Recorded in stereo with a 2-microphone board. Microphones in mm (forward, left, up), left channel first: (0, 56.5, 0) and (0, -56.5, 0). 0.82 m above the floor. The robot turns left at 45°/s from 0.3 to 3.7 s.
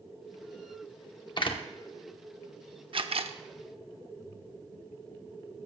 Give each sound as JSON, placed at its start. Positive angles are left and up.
{"t": 1.4, "sound": "a door slam", "side_deg": 45, "distance_m": 1.0}
{"t": 2.9, "sound": "a camera shutter", "side_deg": -50, "distance_m": 0.7}